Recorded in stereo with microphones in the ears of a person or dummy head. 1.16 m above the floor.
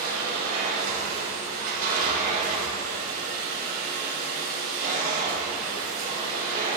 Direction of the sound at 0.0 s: 50° right (ahead or behind).